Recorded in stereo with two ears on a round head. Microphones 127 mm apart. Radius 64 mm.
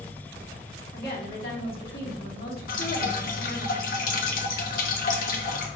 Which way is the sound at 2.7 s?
65° left (ahead or behind).